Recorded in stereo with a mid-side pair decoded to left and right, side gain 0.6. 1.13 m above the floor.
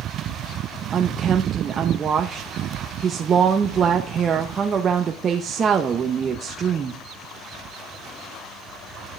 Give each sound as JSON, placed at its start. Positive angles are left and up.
{"t": 0.9, "sound": "a woman speaking", "azimuth_deg": -35, "distance_m": 1.0}